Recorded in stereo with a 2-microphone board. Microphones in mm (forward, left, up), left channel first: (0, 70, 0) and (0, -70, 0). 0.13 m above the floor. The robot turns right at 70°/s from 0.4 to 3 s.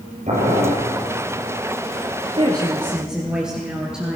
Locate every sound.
0.3 s boiling: 55° right (ahead or behind), 2.5 m; by 0.8 s 65° right (ahead or behind), 2.5 m
2.4 s a woman speaking: 50° right, 1.8 m; by 4.2 s 5° right, 1.8 m